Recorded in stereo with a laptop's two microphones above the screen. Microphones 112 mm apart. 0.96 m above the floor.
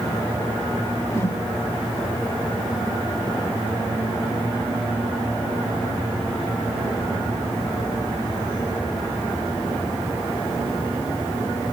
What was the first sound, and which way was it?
A whoosh, 25° left (ahead or behind).